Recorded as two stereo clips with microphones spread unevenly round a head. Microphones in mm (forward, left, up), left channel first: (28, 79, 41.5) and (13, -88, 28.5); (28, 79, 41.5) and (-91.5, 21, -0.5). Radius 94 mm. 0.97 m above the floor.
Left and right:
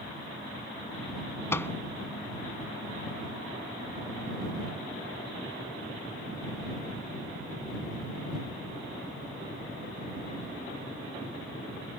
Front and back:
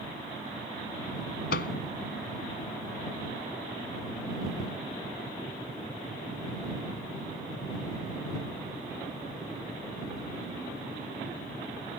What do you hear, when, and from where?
1.5 s a microwave: 10° left